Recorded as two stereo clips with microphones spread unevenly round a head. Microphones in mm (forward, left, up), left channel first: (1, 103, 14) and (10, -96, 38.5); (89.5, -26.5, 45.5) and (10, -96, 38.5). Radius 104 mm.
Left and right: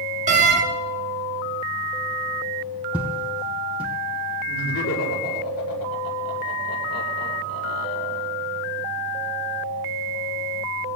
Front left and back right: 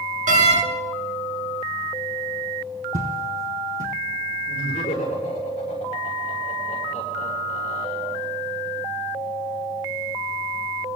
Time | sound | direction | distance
0.3 | a door slam | 145° right | 1.6 m
2.9 | footsteps | 170° right | 3 m
4.5 | laughter | 85° left | 5.5 m